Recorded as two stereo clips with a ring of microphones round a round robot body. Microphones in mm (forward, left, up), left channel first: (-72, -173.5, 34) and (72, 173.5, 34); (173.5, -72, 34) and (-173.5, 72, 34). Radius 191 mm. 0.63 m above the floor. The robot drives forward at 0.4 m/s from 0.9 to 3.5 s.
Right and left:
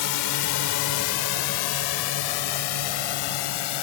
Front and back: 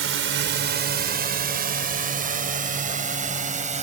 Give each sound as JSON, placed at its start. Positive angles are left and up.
{"t": 0.0, "sound": "a drone", "azimuth_deg": -145}